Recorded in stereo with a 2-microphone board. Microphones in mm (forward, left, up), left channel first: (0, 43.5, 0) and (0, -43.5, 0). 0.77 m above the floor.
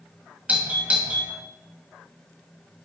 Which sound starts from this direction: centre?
A doorbell, at 0.5 s.